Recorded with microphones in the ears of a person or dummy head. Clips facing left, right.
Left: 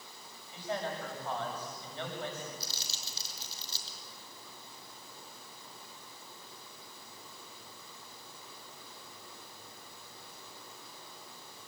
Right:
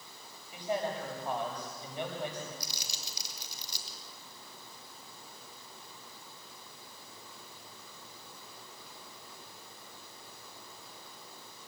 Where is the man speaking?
15° right (ahead or behind), 6.5 m.